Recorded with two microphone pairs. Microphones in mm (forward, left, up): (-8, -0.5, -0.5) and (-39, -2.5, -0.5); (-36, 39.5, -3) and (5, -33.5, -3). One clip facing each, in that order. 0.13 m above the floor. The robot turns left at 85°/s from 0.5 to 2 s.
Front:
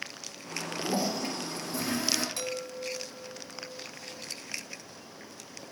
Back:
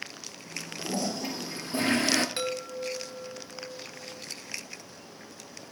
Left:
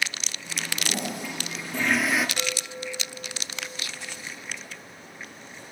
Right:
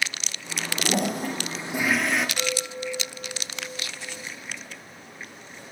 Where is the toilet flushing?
50° right, 0.8 m; by 2.3 s 155° right, 0.8 m.